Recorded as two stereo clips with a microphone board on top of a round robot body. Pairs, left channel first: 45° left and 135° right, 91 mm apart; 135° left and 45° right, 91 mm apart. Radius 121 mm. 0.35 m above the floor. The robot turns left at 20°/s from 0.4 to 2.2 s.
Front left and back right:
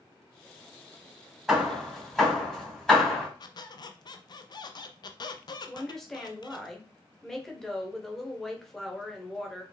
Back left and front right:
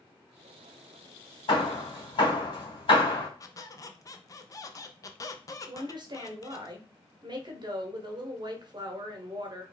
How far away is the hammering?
About 3 m.